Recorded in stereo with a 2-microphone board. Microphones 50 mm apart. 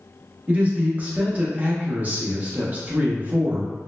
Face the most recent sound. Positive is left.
turn(degrees=-25)  # may be behind; listen again after turning